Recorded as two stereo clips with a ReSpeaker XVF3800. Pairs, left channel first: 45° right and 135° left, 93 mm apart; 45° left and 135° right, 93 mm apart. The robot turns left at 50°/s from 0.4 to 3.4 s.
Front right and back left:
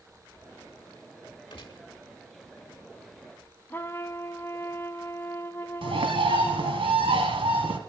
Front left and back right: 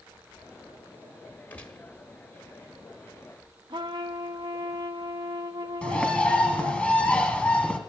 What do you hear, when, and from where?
1.5 s a gunshot: 25° right, 1.4 m; by 1.9 s 45° right, 1.4 m
3.7 s a trumpet: 110° right, 0.7 m
5.8 s a bird: 120° left, 1.5 m